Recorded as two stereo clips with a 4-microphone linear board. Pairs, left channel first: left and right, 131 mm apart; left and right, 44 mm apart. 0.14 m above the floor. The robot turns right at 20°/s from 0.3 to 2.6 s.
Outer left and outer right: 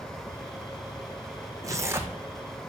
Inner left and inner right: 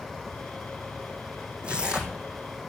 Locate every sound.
1.6 s tearing paper: 25° right (ahead or behind), 1.3 m; by 2.2 s 15° right (ahead or behind), 1.3 m